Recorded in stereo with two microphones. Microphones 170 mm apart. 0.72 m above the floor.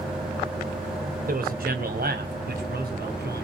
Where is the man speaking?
60° right (ahead or behind), 2.5 m; by 3.5 s 70° right (ahead or behind), 5 m.